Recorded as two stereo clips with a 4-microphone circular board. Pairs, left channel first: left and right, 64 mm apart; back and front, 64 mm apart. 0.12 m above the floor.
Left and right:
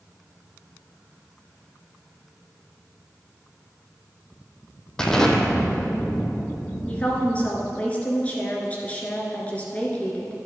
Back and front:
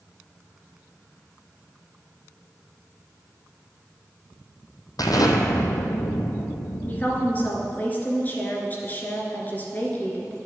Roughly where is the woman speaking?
Behind left.